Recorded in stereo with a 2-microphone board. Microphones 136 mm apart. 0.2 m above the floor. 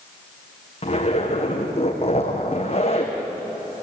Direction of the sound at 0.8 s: 45° left (ahead or behind).